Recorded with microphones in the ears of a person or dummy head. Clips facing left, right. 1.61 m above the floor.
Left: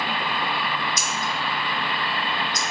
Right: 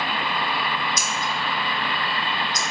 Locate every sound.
1.0 s scissors: 70° right (ahead or behind), 0.6 m